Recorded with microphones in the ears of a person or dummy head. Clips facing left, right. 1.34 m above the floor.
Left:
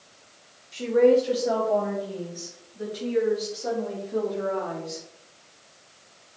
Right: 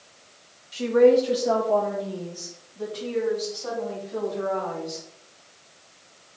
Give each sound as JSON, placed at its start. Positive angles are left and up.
{"t": 0.7, "sound": "a woman speaking", "side_deg": 0, "distance_m": 1.6}